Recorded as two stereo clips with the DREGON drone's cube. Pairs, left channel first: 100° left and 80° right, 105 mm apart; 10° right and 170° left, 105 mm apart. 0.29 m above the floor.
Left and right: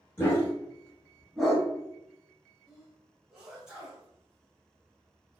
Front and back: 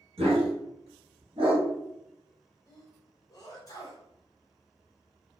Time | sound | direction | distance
0.2 | a dog barking | 170° left | 1.3 m
2.7 | a sneeze | 5° right | 1.0 m